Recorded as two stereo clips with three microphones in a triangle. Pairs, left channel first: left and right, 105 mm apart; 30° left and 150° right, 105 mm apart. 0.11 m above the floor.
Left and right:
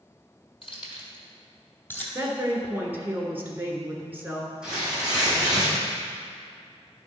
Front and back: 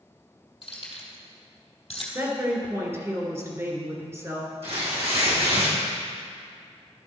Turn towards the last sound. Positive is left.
turn(degrees=-170)